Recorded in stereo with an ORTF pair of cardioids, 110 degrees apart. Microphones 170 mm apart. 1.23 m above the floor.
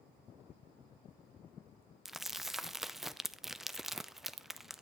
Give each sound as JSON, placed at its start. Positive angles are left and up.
{"t": 2.0, "sound": "crumpling", "azimuth_deg": 0, "distance_m": 0.6}